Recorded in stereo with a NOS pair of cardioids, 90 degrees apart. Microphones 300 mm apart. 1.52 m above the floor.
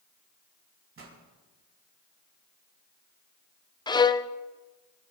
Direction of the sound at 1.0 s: 45° right.